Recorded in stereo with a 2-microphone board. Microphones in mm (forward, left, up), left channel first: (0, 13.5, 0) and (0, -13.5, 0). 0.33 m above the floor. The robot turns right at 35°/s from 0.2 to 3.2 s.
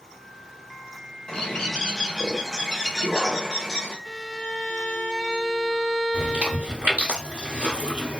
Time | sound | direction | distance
1.3 | a bird | 20° left (ahead or behind) | 1.1 m
4.0 | a violin | 5° left (ahead or behind) | 1.5 m
6.1 | chewing | 60° right (ahead or behind) | 1.1 m